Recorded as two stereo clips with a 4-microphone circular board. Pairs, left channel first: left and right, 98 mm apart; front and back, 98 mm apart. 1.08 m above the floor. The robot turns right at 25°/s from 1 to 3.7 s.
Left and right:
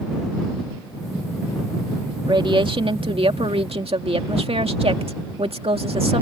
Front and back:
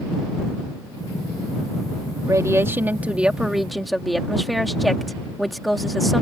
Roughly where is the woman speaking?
Behind right.